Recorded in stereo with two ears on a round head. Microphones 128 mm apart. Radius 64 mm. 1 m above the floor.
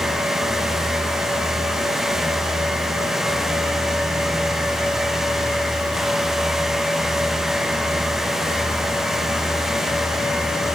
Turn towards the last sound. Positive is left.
No sound to turn to.